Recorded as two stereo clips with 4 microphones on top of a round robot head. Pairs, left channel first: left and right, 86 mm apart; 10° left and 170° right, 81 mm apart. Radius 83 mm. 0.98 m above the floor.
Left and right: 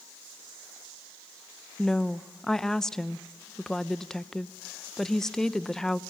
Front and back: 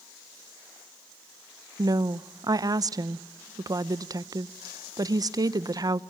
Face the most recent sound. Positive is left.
turn(degrees=170)